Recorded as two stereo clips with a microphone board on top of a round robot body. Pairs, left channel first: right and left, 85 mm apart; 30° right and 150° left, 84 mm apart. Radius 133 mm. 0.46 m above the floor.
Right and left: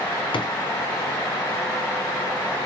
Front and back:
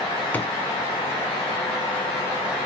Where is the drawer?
100° right, 1.1 m.